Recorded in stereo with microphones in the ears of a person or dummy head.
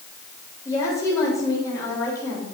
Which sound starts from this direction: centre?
A woman speaking, at 0.7 s.